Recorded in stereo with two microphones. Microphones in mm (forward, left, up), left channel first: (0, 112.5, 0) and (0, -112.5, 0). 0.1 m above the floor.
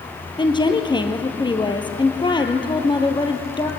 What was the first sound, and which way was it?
A woman speaking, 20° left (ahead or behind).